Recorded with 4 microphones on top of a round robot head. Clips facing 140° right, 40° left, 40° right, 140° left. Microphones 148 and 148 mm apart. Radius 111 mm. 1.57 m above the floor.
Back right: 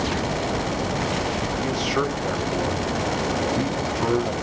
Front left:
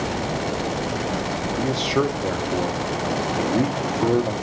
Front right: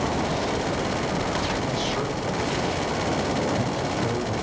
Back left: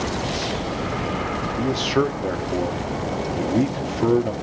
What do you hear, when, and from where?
1.6 s a man speaking: 105° left, 1.7 m